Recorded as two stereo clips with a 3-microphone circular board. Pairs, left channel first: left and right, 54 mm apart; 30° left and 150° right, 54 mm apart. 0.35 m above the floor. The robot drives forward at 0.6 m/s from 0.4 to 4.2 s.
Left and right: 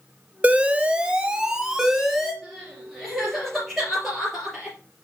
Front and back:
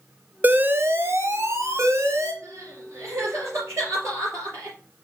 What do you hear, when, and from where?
0.4 s an alarm: 130° right, 0.6 m; by 2.3 s 170° right, 1.4 m
2.4 s crying: 175° right, 3 m